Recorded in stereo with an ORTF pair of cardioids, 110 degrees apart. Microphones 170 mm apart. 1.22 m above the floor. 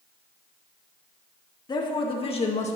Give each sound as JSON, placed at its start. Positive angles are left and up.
{"t": 1.7, "sound": "a woman speaking", "azimuth_deg": 25, "distance_m": 1.8}